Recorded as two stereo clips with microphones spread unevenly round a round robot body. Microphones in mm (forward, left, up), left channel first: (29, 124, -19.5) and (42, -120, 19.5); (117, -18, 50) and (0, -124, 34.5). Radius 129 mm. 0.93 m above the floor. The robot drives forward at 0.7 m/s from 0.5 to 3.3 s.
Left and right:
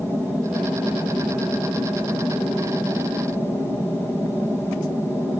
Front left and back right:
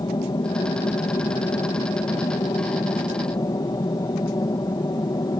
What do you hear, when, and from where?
0.0 s an aircraft: 5° left